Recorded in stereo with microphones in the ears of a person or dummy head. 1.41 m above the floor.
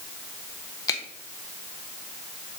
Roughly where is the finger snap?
Left.